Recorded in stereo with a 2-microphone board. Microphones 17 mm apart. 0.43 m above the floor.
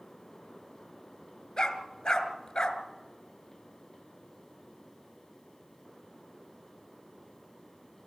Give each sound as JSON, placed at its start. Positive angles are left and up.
{"t": 1.6, "sound": "a dog barking", "side_deg": 65, "distance_m": 2.0}